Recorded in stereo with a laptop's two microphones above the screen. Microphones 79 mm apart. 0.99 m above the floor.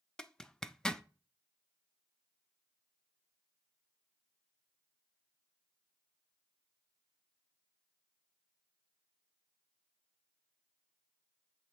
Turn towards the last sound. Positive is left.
turn(degrees=10)  # may be behind; listen again after turning